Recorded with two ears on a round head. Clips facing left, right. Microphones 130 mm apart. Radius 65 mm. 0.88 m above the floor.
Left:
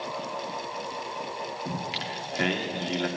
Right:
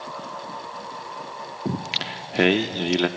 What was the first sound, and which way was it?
Singing, 70° right (ahead or behind).